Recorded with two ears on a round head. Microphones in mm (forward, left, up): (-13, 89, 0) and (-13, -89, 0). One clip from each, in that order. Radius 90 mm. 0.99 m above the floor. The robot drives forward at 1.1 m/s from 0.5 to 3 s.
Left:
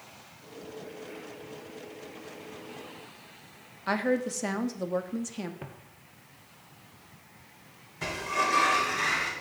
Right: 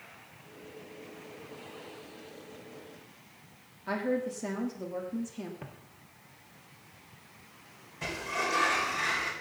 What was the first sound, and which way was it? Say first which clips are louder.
A woman speaking: left 4 dB; 50° left (ahead or behind).